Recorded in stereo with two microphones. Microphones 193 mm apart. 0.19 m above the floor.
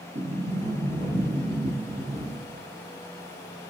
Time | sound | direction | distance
0.1 | a sliding door | 50° right (ahead or behind) | 0.9 m